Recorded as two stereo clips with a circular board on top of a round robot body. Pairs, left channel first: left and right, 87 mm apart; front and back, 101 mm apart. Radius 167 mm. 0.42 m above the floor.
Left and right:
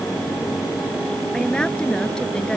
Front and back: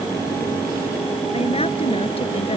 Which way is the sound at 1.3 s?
10° left.